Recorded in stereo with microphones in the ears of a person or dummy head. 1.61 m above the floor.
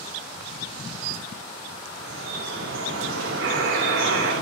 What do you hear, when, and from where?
2.0 s dripping: 80° right, 3 m
3.4 s a buzzer: 70° right (ahead or behind), 3.5 m